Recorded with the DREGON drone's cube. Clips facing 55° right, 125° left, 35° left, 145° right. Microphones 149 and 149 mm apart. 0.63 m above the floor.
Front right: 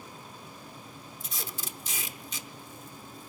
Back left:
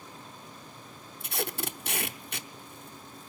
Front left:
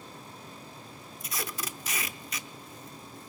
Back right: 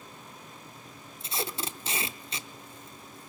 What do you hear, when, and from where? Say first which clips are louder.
1.2 s tape being pulled: back left 9 dB, back right 3 dB; 150° left, 0.7 m